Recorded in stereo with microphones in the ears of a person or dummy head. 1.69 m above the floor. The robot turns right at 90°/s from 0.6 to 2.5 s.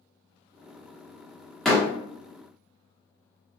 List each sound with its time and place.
1.6 s a door slam: 5° left (ahead or behind), 0.8 m; by 1.9 s 25° left (ahead or behind), 0.8 m